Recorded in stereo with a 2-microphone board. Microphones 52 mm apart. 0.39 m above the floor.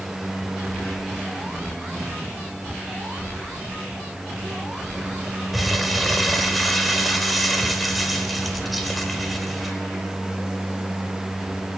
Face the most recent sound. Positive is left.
turn(degrees=0)  # may be behind; listen again after turning